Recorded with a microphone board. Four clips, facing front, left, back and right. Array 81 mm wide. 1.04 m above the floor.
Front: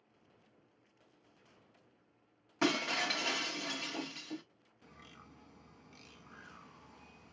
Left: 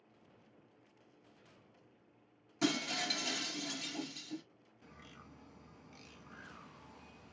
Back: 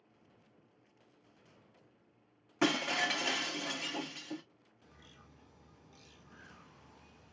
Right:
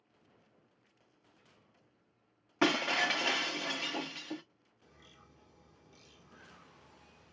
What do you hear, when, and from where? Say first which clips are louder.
2.6 s breaking glass: right 6 dB, back 1 dB; 95° right, 0.8 m
4.8 s a bird: left 4 dB, front 4 dB; 50° left, 1.4 m